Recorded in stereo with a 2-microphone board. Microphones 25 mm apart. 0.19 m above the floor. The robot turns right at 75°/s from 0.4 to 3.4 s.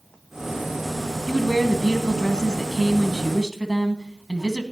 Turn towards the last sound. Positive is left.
turn(degrees=-20)